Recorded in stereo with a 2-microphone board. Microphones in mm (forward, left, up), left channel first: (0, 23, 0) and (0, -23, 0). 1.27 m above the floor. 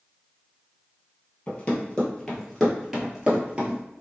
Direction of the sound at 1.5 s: 30° left (ahead or behind).